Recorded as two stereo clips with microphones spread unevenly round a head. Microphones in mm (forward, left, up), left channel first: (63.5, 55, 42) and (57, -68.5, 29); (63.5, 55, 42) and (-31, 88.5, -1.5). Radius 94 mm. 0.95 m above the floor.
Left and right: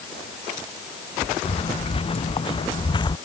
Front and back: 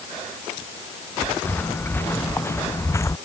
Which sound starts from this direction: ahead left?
Footsteps, at 1.4 s.